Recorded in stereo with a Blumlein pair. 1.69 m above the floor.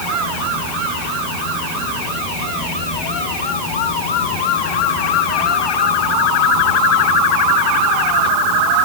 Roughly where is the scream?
No scream in this recording.